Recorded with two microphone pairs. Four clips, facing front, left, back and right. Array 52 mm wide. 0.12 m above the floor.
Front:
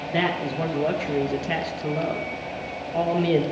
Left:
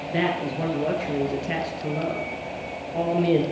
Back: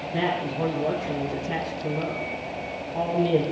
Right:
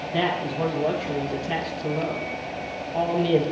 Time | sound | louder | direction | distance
0.1 | a man speaking | even, front 2 dB | 20° left | 2 m